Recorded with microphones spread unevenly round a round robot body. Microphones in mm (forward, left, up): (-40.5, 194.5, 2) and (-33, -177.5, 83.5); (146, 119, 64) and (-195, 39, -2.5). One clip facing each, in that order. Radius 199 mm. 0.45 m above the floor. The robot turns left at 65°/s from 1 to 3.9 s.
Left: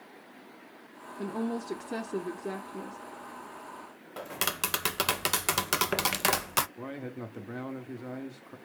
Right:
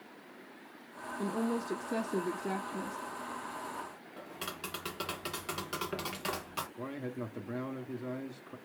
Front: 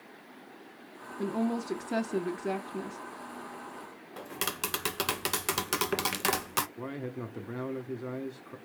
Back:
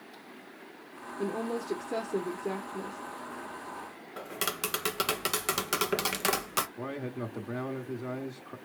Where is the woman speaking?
100° left, 0.8 m; by 3.0 s 20° right, 0.8 m.